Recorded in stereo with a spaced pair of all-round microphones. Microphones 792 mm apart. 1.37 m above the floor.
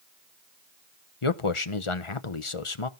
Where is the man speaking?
40° left (ahead or behind), 0.9 m.